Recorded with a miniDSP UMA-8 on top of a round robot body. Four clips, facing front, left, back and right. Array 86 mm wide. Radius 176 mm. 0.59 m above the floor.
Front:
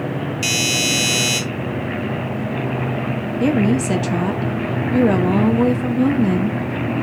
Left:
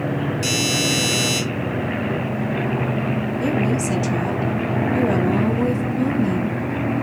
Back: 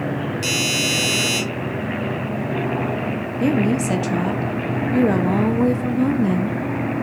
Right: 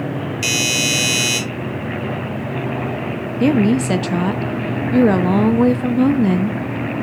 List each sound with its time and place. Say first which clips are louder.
0.4 s a doorbell: even, front 1 dB; 60° right, 5 m
3.4 s a woman speaking: right 8 dB, front 2 dB; 80° right, 1.0 m